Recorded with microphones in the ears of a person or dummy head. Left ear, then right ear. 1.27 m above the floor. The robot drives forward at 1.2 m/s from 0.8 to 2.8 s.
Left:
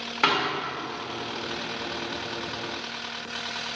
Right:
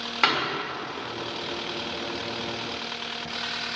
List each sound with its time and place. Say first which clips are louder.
0.2 s a thud: even; 20° right (ahead or behind), 3 m